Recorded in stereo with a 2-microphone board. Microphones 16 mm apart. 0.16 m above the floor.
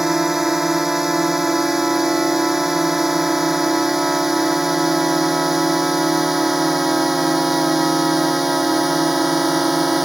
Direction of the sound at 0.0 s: 25° right (ahead or behind).